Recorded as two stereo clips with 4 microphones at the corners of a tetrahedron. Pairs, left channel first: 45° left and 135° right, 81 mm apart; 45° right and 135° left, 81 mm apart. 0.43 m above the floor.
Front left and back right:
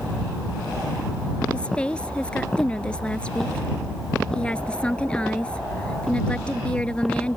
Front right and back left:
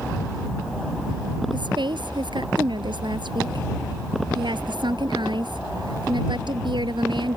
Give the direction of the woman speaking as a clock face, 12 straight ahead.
8 o'clock.